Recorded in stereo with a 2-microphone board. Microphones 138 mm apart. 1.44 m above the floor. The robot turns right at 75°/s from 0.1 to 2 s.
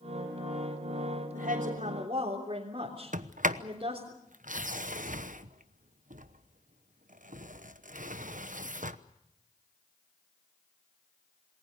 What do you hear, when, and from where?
1.3 s a woman speaking: 90° right, 3.5 m; by 4.1 s 40° right, 3.5 m
3.1 s a sliding door: 70° right (ahead or behind), 1.0 m